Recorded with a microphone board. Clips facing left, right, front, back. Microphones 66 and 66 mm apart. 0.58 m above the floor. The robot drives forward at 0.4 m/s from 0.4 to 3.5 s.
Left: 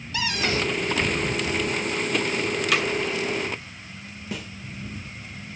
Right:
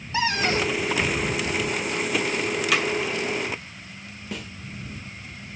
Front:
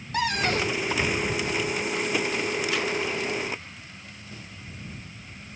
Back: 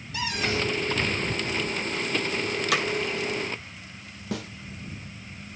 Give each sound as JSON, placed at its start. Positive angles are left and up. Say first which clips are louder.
{"t": 0.1, "sound": "a cupboard door", "louder": "right 3 dB, front 3 dB", "azimuth_deg": -30, "distance_m": 1.4}
{"t": 2.7, "sound": "hammering", "louder": "even, back 6 dB", "azimuth_deg": 180, "distance_m": 2.5}
{"t": 4.3, "sound": "a snare drum", "louder": "left 1 dB, back 14 dB", "azimuth_deg": 180, "distance_m": 0.6}